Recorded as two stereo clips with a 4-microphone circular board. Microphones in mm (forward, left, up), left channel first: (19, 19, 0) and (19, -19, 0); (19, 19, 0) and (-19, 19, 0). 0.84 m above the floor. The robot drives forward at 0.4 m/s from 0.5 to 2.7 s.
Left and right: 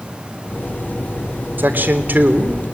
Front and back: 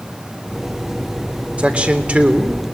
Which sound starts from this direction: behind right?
A man speaking, at 1.6 s.